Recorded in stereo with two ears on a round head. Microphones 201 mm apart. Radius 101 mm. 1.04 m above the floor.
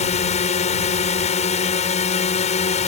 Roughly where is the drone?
Left.